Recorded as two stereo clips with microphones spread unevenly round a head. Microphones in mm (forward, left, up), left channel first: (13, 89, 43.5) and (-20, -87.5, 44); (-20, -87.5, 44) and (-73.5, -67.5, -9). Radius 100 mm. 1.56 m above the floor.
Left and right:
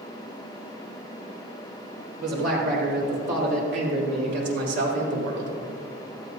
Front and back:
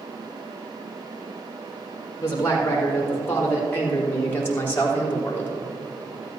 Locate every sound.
2.2 s a man speaking: 65° right, 4.5 m; by 5.6 s 75° right, 3 m